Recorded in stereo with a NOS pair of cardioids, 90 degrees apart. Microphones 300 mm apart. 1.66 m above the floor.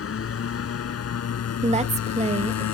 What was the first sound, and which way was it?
A motorcycle, 50° left.